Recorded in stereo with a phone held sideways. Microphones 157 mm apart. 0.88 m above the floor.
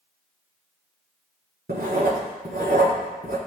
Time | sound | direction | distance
1.7 | writing | 80° right | 6 m